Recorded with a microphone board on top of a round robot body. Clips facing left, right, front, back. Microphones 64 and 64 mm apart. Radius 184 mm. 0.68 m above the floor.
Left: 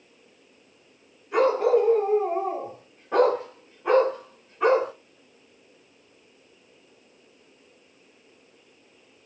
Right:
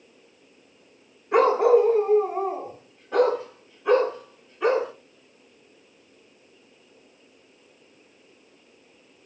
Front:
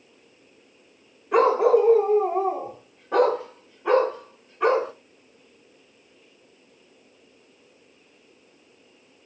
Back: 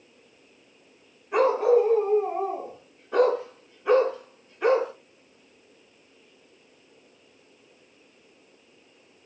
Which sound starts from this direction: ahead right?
A dog barking, at 1.3 s.